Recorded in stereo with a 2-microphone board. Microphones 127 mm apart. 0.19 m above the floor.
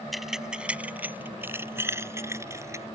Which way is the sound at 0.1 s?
Centre (ahead or behind).